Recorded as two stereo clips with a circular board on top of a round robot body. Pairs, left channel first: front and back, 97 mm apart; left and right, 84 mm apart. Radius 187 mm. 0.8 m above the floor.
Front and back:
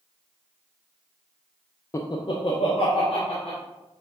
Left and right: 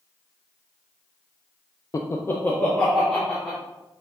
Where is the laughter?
50° left, 0.5 m; by 3.6 s 10° left, 1.5 m.